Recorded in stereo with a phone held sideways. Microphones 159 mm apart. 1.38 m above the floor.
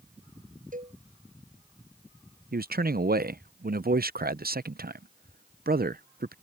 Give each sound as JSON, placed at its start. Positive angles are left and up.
{"t": 0.7, "sound": "a cowbell", "side_deg": -60}
{"t": 2.5, "sound": "a man speaking", "side_deg": -80}